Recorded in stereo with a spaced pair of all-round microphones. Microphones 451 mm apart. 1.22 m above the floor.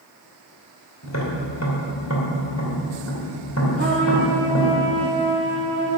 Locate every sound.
1.0 s tapping: 35° left (ahead or behind), 2.5 m
3.8 s a trumpet: 25° right (ahead or behind), 5 m